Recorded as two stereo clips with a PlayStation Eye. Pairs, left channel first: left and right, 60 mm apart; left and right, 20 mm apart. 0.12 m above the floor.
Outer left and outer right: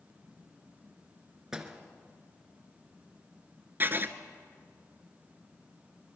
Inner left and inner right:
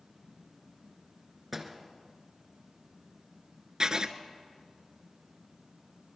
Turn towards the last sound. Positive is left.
turn(degrees=-35)  # may be behind; listen again after turning